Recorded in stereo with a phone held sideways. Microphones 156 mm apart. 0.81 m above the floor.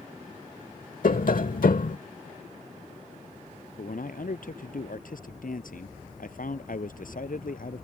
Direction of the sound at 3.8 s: 70° left (ahead or behind).